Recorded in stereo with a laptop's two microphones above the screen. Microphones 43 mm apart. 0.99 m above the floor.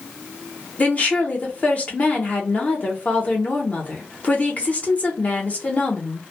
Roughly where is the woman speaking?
Left.